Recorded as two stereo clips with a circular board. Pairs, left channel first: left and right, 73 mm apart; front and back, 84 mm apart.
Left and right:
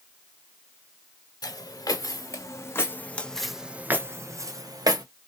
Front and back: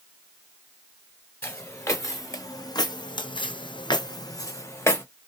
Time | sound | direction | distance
1.4 | footsteps | 60° left | 1.3 m